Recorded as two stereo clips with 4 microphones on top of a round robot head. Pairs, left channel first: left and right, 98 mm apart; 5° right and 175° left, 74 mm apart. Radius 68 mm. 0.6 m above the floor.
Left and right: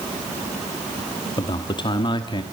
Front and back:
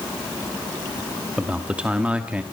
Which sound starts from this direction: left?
A man speaking, at 1.4 s.